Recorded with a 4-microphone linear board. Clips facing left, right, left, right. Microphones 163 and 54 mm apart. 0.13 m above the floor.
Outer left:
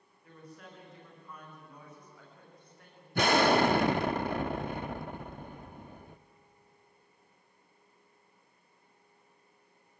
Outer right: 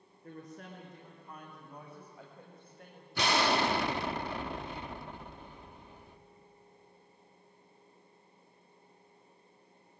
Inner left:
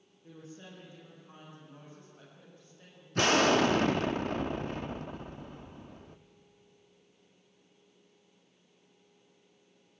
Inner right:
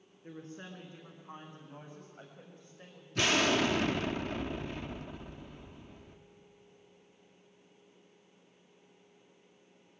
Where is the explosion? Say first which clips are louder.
Outer left 5 dB, inner left 4 dB; 50° left (ahead or behind), 1.0 m.